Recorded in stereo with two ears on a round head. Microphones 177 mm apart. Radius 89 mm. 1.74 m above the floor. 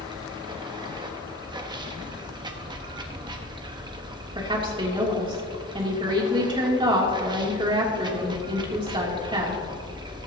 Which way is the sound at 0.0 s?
20° right (ahead or behind).